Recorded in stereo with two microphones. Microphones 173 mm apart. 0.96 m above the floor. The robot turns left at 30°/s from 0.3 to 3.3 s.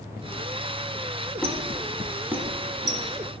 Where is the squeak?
5° left (ahead or behind), 1.0 m; by 3.0 s 25° right (ahead or behind), 1.0 m.